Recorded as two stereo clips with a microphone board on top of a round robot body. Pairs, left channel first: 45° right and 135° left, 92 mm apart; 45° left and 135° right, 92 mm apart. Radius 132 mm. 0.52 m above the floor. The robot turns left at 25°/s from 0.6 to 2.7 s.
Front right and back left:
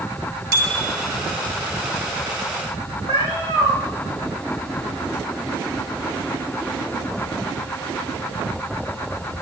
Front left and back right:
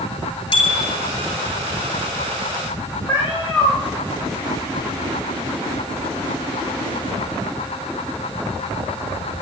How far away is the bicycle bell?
About 7 m.